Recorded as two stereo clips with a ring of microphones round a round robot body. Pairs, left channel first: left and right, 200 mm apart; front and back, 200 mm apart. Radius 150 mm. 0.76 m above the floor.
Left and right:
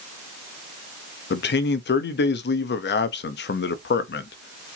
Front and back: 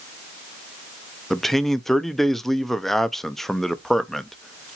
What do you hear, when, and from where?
1.3 s a man speaking: 90° left, 0.7 m